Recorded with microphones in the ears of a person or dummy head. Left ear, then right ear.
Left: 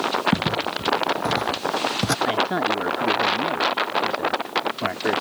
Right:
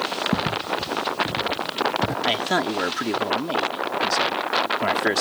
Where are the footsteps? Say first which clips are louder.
Left 1 dB; 15° left (ahead or behind); by 2.1 s 50° left (ahead or behind).